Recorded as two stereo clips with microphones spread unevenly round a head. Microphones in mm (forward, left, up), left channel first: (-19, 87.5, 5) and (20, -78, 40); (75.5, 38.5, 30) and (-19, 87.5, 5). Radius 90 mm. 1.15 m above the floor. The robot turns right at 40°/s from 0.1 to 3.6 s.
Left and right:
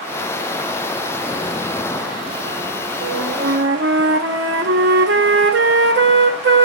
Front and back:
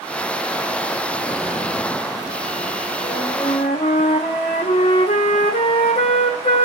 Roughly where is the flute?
Right.